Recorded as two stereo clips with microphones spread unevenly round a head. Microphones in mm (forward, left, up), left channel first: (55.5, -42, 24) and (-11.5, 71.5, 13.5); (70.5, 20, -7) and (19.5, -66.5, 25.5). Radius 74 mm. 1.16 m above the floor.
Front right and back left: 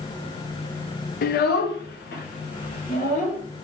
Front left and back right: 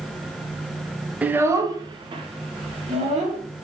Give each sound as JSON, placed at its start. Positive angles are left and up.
{"t": 1.2, "sound": "a child speaking", "azimuth_deg": -40, "distance_m": 0.6}